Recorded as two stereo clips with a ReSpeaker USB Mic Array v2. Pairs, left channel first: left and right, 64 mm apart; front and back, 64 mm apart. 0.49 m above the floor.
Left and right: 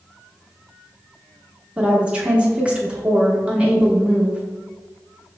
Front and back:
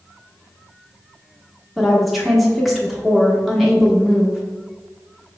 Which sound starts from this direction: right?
A woman speaking, at 1.8 s.